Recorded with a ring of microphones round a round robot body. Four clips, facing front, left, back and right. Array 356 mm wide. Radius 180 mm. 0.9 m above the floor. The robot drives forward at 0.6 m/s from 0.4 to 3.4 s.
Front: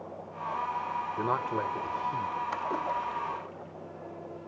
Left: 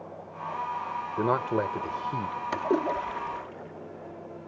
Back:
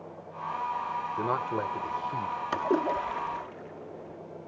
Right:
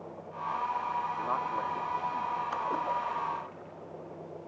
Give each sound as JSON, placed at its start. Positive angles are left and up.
{"t": 1.2, "sound": "a man speaking", "azimuth_deg": 85}
{"t": 2.5, "sound": "a splash", "azimuth_deg": 125}